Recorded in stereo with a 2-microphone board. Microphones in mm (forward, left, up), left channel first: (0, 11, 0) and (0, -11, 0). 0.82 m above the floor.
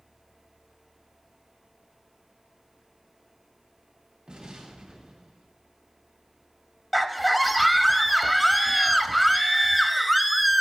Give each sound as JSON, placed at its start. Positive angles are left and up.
{"t": 4.3, "sound": "an explosion", "side_deg": -60, "distance_m": 2.5}
{"t": 6.9, "sound": "a scream", "side_deg": -10, "distance_m": 0.7}